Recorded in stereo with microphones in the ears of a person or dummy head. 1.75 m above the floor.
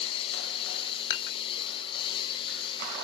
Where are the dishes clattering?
60° left (ahead or behind).